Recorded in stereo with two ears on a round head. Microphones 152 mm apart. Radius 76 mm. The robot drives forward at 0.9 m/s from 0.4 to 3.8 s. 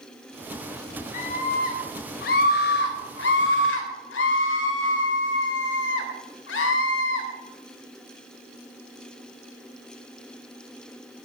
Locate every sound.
1.1 s a scream: 50° left (ahead or behind), 4 m; by 7.3 s 80° left, 3 m